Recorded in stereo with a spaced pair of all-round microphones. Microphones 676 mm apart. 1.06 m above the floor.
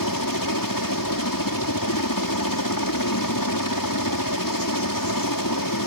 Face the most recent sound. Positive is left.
turn(degrees=30)  # may be behind; listen again after turning